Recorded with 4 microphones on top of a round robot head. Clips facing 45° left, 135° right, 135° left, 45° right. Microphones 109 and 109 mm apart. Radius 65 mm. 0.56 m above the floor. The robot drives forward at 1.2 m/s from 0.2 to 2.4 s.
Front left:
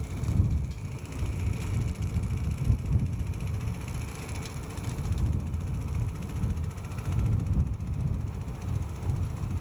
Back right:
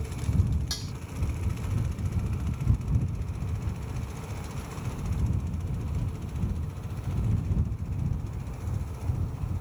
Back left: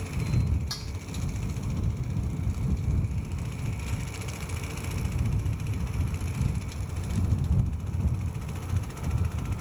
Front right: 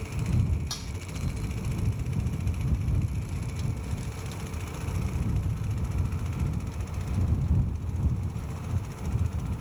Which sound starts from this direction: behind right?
Dishes clattering, at 0.7 s.